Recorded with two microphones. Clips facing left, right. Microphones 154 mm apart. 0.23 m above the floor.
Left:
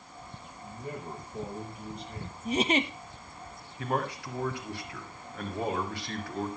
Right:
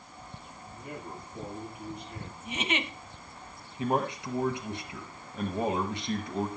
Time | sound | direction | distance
0.6 | a man speaking | 35° left (ahead or behind) | 6.5 m
2.5 | a giggle | 40° left (ahead or behind) | 0.6 m
3.8 | a man speaking | 20° right (ahead or behind) | 1.5 m